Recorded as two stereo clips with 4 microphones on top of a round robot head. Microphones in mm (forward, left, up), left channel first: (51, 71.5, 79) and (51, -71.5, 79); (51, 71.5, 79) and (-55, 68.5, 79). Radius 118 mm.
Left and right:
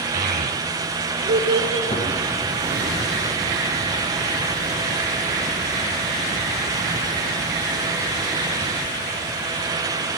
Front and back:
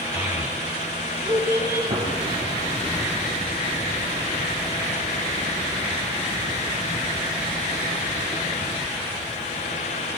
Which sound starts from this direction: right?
A child speaking, at 0.1 s.